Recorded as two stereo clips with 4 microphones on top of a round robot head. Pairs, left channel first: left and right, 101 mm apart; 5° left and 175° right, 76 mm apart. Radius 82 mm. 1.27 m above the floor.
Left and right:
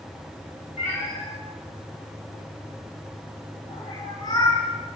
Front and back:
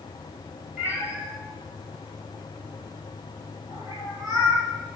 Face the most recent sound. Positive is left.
turn(degrees=150)